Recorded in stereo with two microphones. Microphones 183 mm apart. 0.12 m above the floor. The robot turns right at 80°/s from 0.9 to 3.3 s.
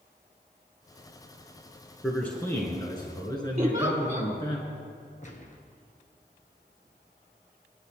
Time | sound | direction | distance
2.0 | a man speaking | centre (ahead or behind) | 1.8 m
3.6 | a giggle | 40° right (ahead or behind) | 2.5 m
5.2 | a gunshot | 45° left (ahead or behind) | 1.9 m